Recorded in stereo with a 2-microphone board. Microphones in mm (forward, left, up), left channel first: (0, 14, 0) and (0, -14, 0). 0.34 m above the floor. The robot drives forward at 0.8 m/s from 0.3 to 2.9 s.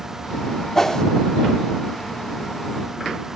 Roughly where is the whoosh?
Centre.